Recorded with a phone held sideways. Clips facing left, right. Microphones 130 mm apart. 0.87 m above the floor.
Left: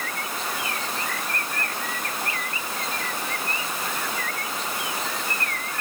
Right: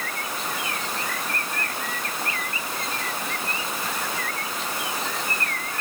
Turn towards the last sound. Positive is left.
No sound to turn to.